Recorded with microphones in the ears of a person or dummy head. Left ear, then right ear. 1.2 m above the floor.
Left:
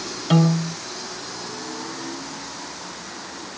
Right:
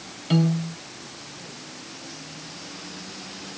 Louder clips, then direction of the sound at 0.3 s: Left 4 dB; 35° left (ahead or behind).